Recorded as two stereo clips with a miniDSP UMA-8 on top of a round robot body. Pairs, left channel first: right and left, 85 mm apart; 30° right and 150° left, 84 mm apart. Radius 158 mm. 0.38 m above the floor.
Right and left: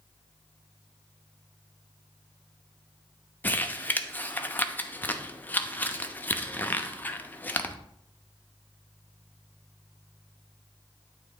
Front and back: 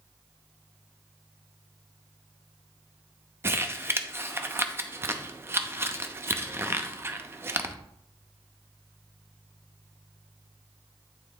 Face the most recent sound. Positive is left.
turn(degrees=-155)